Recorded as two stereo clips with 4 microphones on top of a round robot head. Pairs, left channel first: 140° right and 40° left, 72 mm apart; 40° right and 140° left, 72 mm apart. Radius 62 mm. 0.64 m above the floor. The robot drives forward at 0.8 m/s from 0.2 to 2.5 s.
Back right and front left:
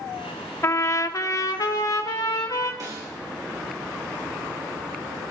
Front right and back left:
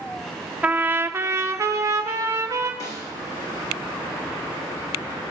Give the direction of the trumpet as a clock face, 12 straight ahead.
5 o'clock.